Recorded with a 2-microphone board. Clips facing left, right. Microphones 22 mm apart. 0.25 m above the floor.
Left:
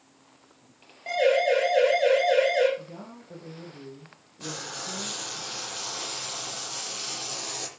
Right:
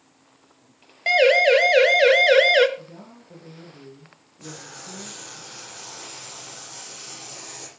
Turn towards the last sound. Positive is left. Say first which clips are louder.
# left 4 dB
turn(degrees=35)  # may be behind; listen again after turning